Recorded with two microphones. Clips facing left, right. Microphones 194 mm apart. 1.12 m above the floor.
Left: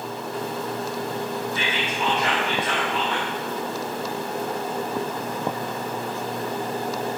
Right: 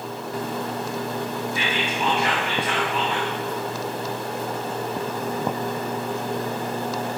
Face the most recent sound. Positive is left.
turn(degrees=-10)  # may be behind; listen again after turning